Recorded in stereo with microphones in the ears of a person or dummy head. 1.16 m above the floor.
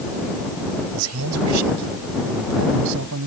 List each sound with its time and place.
0.9 s a man speaking: 80° right; by 3.3 s 85° right